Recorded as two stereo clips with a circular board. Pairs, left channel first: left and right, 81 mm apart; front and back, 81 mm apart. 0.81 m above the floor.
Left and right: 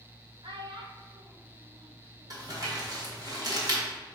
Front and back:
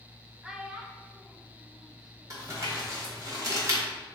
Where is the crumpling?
130° right, 1.4 m.